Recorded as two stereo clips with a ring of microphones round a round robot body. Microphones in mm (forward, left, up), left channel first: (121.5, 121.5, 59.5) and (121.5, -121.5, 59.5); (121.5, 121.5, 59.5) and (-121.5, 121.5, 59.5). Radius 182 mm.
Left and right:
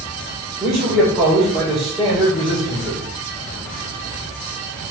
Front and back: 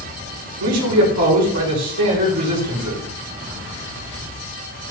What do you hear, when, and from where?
0.6 s a man speaking: straight behind, 3.5 m